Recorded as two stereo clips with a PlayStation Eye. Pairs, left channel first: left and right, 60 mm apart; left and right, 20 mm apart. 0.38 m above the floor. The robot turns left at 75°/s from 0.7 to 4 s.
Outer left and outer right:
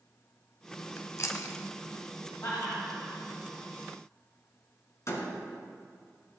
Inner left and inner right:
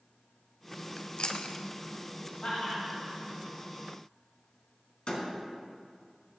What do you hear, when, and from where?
1.0 s chewing: 45° left (ahead or behind), 1.0 m; by 1.6 s 75° left (ahead or behind), 1.0 m
2.4 s laughter: 70° left (ahead or behind), 3 m; by 3.2 s 30° left (ahead or behind), 3 m
5.1 s a door slam: 55° left (ahead or behind), 2.5 m